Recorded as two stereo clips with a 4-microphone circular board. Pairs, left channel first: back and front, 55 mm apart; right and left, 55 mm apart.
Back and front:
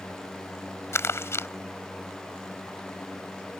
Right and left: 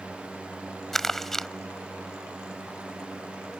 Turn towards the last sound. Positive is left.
turn(degrees=-170)